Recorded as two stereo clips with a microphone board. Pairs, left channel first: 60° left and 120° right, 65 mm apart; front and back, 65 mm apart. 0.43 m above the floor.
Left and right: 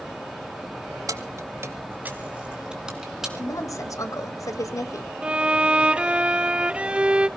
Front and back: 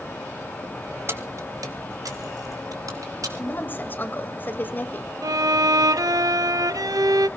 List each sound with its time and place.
1.1 s keys jangling: 135° right, 1.6 m; by 3.3 s 155° left, 3.5 m
3.4 s a woman speaking: 55° left, 1.7 m
5.2 s a violin: 170° left, 0.5 m